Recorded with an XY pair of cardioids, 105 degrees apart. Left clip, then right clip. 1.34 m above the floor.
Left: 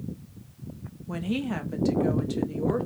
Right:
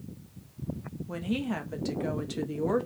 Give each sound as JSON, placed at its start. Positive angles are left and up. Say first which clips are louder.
{"t": 1.1, "sound": "a woman speaking", "louder": "left 2 dB", "azimuth_deg": 20, "distance_m": 1.2}